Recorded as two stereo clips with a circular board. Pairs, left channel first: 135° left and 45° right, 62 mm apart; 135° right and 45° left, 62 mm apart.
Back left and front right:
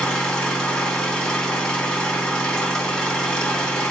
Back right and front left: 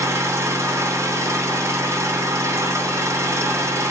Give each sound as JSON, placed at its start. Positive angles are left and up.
{"t": 0.0, "sound": "an engine running", "azimuth_deg": 60, "distance_m": 0.9}